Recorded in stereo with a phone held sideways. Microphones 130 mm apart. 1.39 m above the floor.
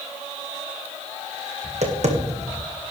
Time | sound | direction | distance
1.6 | tapping | 60° right (ahead or behind) | 1.8 m